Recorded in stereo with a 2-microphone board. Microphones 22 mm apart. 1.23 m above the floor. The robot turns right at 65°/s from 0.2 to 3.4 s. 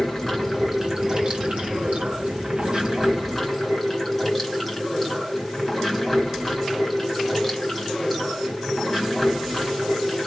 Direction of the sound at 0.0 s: 160° left.